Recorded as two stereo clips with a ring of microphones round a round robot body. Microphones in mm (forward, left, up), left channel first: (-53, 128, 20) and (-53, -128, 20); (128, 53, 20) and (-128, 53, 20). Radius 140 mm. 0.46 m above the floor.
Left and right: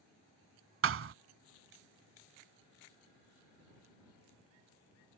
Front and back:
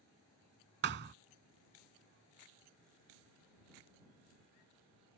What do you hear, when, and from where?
0.8 s a thud: 125° right